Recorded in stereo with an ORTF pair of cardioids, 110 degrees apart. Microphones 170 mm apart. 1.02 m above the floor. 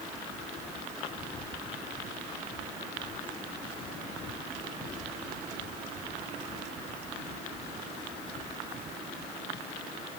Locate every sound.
Only background noise.